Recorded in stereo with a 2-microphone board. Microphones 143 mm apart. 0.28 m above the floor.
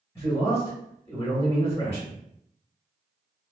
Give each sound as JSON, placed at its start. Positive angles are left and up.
{"t": 0.1, "sound": "a man speaking", "side_deg": 20, "distance_m": 1.5}